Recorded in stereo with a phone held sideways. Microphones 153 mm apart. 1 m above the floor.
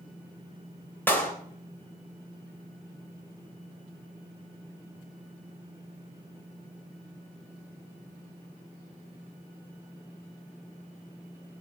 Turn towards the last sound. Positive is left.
turn(degrees=10)  # may be behind; listen again after turning